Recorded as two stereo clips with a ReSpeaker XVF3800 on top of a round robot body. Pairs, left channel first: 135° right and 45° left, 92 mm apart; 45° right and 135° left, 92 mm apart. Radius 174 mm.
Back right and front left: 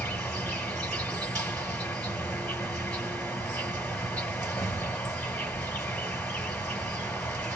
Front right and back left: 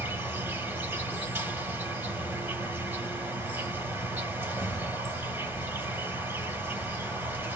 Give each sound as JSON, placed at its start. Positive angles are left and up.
{"t": 0.0, "sound": "an insect", "azimuth_deg": 170, "distance_m": 2.5}